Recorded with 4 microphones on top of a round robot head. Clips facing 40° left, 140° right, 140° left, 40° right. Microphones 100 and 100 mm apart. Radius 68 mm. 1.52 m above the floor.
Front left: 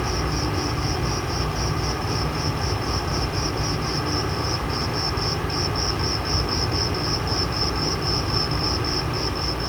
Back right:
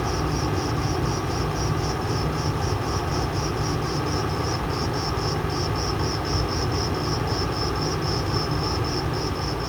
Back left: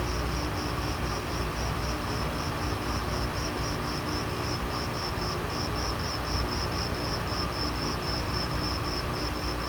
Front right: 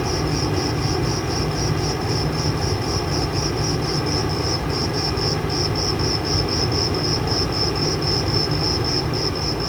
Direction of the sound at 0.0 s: 60° right.